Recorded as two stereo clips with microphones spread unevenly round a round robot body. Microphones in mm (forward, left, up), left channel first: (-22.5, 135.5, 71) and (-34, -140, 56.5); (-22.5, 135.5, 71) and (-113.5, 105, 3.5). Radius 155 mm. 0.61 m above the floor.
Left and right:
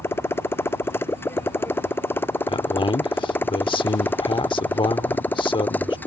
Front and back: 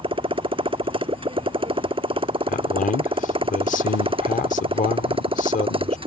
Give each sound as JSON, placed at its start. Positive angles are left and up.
{"t": 0.0, "sound": "a motorcycle", "azimuth_deg": 170}
{"t": 2.5, "sound": "a man speaking", "azimuth_deg": 15}